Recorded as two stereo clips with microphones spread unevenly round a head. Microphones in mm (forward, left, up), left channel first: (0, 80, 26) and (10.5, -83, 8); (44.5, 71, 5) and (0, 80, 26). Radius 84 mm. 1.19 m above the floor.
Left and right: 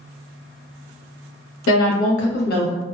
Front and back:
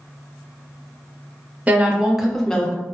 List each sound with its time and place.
1.7 s a woman speaking: 105° left, 1.1 m; by 2.7 s 50° left, 0.9 m